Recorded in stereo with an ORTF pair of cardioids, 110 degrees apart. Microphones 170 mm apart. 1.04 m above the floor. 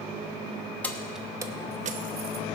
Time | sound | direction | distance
0.8 | keys jangling | 10° left | 1.2 m